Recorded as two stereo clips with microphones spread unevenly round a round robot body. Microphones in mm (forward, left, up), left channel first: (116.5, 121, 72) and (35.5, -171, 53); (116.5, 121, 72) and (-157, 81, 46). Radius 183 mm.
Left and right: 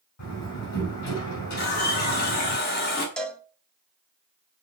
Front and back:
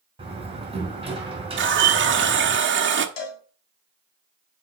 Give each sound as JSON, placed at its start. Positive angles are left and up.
{"t": 0.2, "sound": "a door slam", "azimuth_deg": 120, "distance_m": 5.5}
{"t": 1.6, "sound": "a running tap", "azimuth_deg": 140, "distance_m": 1.2}
{"t": 3.2, "sound": "a cowbell", "azimuth_deg": -10, "distance_m": 1.5}